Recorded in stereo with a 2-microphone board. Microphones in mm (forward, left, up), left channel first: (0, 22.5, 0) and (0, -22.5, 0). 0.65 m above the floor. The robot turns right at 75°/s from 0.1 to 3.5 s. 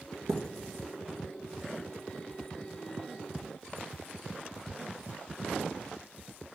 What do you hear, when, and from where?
0.3 s a thud: 35° right (ahead or behind), 1.8 m; by 0.4 s 45° right (ahead or behind), 1.8 m